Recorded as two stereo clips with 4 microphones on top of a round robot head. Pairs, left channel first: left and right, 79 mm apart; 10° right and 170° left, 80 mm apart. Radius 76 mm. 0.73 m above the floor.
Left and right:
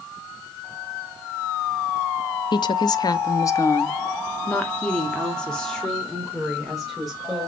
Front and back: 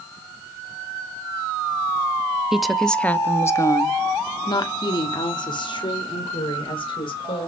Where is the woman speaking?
90° left, 0.9 m; by 7.5 s straight ahead, 3 m.